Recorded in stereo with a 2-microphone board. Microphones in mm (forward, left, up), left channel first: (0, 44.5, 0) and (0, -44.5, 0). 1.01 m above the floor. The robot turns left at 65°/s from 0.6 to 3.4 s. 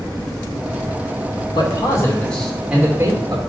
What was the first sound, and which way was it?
A man speaking, 60° left.